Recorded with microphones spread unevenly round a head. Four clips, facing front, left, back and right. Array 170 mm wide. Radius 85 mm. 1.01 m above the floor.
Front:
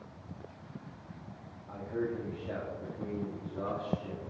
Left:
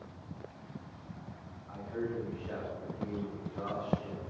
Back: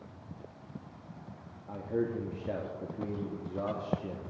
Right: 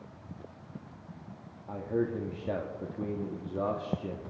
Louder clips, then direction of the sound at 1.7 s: Right 6 dB, back 2 dB; 120° right.